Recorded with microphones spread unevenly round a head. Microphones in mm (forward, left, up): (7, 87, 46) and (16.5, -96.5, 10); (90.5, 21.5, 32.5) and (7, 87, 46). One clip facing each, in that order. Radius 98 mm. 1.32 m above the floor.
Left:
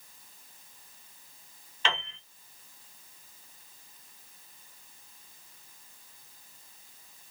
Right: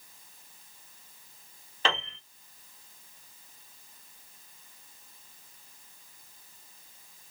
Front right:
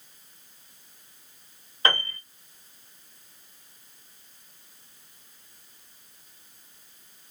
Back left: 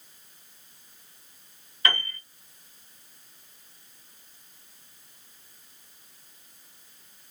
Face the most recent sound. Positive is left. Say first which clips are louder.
# right 3 dB, front right 3 dB
turn(degrees=-75)